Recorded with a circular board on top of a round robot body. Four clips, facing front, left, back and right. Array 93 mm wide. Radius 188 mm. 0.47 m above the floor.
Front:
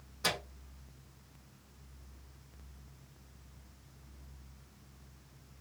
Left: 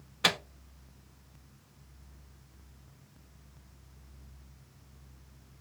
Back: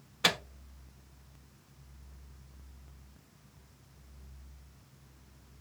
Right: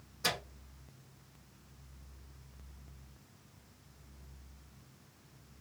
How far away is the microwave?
About 0.6 m.